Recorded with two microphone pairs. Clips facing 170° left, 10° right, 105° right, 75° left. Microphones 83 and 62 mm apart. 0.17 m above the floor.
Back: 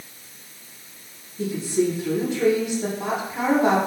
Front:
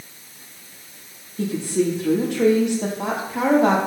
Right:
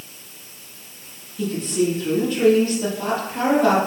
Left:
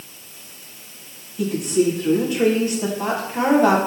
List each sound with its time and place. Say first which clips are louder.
1.4 s a woman speaking: front 1 dB, left 2 dB; 5° right, 5.5 m